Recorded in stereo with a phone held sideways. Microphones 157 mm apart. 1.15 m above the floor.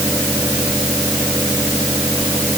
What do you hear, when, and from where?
0.0 s a fan: 15° right (ahead or behind)